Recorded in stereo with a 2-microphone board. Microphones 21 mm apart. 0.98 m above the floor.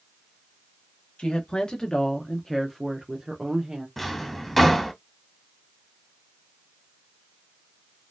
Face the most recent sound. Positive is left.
turn(degrees=5)  # may be behind; listen again after turning